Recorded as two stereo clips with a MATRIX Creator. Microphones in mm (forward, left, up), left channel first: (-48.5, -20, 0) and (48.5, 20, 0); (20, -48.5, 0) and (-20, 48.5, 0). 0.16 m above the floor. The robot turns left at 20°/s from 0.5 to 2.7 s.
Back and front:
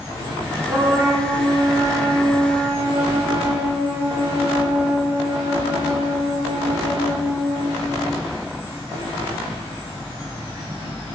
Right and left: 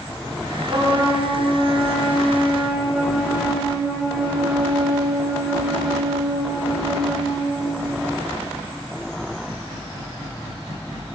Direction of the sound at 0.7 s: 80° left.